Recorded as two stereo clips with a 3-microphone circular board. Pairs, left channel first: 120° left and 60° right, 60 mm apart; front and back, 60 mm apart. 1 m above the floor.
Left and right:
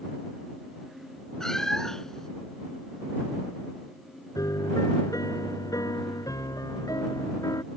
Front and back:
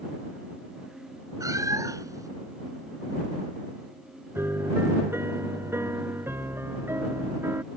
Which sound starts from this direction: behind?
A cat meowing, at 1.4 s.